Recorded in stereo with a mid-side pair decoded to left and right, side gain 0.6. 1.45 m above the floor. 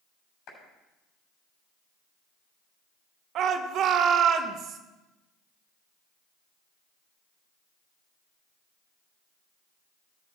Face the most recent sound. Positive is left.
turn(degrees=-55)